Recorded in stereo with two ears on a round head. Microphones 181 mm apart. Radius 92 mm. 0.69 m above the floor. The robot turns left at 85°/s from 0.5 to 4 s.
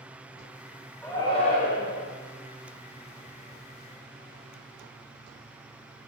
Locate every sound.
1.0 s a shout: 175° left, 2 m; by 2.1 s 85° left, 2 m